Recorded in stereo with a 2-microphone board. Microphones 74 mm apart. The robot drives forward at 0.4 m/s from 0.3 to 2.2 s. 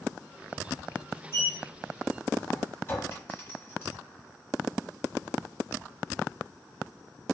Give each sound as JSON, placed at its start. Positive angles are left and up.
{"t": 1.3, "sound": "a sliding door", "side_deg": 35, "distance_m": 0.8}
{"t": 2.9, "sound": "a clink", "side_deg": 30, "distance_m": 1.0}